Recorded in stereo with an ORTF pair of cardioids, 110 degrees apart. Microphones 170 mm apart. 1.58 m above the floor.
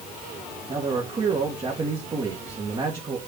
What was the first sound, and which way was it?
A man speaking, 30° right.